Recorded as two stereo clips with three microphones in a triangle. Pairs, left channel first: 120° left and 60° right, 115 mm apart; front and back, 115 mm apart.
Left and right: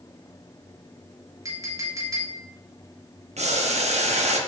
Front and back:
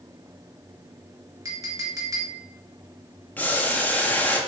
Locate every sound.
1.4 s a clink: 120° right, 1.5 m
3.4 s boiling: 75° right, 0.9 m